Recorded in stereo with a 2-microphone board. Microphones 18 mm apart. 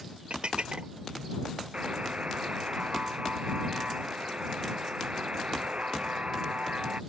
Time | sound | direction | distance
0.3 | dishes clattering | 65° right (ahead or behind) | ?
1.7 | a buzzer | 80° right | ?